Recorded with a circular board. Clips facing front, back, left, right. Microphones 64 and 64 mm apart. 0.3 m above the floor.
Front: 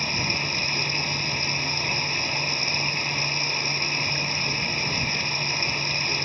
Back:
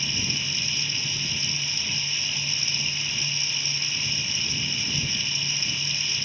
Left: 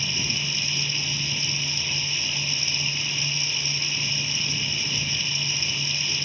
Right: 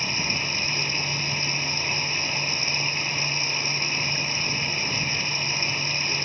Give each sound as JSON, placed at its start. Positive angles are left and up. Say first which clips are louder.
{"t": 0.0, "sound": "running water", "louder": "front 4 dB, right 2 dB", "azimuth_deg": -40}